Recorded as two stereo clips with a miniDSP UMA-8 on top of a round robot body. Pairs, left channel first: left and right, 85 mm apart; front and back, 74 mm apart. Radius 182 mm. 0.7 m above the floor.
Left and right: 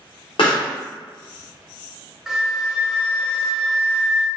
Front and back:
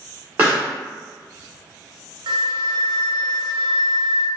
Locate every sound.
0.4 s a pop: 110° left, 1.3 m
2.3 s a flute: 175° right, 0.6 m